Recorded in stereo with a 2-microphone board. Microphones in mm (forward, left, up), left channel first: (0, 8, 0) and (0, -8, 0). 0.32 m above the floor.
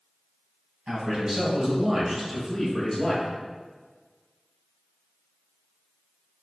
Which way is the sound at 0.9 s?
65° right (ahead or behind).